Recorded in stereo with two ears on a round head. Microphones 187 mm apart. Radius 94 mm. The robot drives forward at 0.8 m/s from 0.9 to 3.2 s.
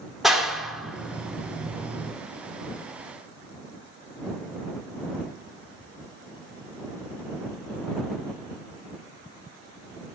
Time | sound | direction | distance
0.2 | a clap | centre (ahead or behind) | 1.0 m